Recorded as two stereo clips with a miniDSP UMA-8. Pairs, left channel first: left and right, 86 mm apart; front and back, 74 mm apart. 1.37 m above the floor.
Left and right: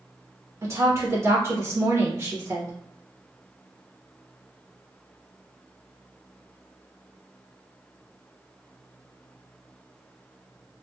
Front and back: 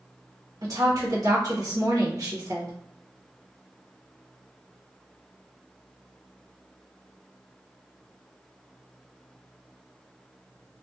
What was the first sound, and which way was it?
A woman speaking, 145° right.